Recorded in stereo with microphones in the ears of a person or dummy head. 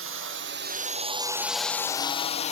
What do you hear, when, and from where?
0.0 s a drone: 60° right (ahead or behind); by 2.5 s 35° left (ahead or behind)